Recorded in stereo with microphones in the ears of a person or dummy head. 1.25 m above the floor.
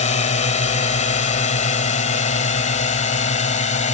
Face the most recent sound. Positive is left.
turn(degrees=45)  # may be behind; listen again after turning